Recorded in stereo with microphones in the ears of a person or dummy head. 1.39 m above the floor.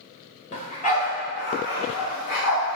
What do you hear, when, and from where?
0.5 s a dog barking: 40° left (ahead or behind), 2 m; by 2.8 s 75° left (ahead or behind), 3 m